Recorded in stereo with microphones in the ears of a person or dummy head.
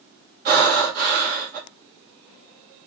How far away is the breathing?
About 1.5 m.